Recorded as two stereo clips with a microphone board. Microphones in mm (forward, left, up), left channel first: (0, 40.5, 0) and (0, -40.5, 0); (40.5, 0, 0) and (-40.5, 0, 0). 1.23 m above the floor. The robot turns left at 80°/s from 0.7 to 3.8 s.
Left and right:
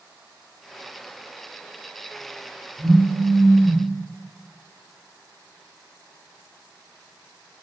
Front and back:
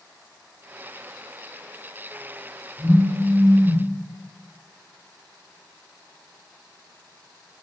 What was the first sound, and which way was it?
A phone buzzing, 160° right.